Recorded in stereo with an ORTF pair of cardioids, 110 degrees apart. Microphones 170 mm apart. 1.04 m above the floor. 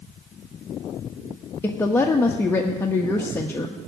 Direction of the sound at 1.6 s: 15° left.